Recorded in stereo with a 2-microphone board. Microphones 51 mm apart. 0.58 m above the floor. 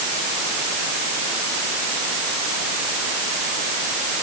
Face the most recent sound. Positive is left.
No sound to turn to.